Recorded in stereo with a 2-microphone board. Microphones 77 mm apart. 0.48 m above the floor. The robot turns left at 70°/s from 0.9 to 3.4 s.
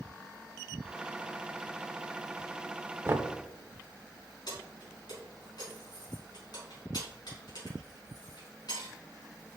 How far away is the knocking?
About 0.6 m.